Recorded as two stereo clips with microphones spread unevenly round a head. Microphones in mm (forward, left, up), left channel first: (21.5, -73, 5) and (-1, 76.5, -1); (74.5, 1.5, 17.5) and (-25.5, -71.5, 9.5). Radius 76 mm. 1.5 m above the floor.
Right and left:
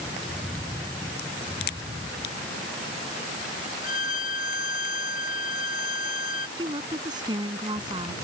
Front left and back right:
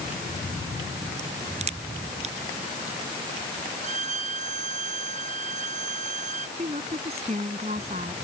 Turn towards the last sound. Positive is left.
turn(degrees=165)